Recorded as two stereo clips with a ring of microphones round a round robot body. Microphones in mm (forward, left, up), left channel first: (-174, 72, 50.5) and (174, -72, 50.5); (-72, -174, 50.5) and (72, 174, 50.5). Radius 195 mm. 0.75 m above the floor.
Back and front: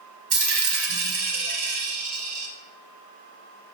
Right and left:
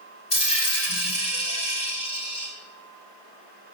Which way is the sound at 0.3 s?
40° right.